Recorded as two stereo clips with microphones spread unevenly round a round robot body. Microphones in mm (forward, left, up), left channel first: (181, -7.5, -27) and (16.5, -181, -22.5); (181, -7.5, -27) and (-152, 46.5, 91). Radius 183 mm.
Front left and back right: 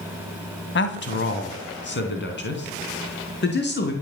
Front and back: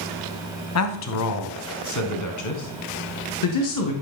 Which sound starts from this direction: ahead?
A man speaking, at 0.8 s.